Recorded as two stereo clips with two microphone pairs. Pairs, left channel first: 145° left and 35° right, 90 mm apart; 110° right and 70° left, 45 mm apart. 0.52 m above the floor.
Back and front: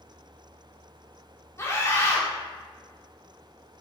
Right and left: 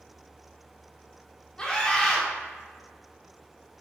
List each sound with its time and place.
1.6 s a scream: 175° right, 1.3 m